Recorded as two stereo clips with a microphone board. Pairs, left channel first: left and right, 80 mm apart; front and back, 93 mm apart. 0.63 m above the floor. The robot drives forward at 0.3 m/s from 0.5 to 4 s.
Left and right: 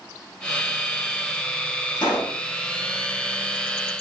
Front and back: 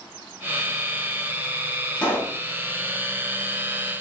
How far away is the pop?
About 3.5 m.